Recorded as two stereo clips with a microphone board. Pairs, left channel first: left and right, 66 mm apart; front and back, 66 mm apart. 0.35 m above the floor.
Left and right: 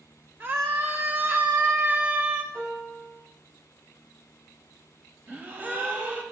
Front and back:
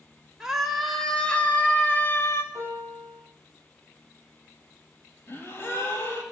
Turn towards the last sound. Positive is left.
turn(degrees=-35)